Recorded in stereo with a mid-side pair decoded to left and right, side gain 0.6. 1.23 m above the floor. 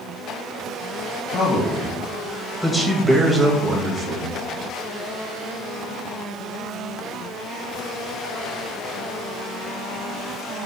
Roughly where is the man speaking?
Ahead left.